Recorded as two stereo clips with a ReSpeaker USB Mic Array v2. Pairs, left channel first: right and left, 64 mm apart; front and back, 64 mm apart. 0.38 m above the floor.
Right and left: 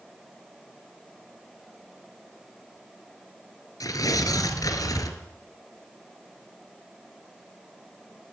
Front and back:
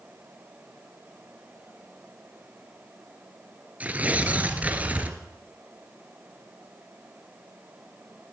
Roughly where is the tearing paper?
Behind right.